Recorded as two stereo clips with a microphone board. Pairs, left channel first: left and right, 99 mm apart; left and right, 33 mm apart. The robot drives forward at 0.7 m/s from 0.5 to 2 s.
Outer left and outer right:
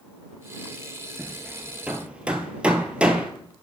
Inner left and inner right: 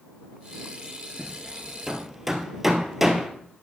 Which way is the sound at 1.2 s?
15° right (ahead or behind).